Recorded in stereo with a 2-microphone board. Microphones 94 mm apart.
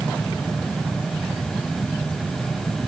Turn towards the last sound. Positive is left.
No sound to turn to.